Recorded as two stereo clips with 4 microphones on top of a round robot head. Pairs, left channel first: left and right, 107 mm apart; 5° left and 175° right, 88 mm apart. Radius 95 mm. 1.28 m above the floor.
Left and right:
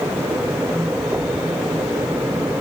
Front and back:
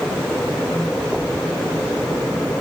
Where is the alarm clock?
No alarm clock in this recording.